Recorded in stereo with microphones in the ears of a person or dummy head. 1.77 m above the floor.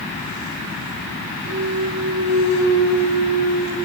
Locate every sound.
1.4 s a clunk: 75° right (ahead or behind), 3.5 m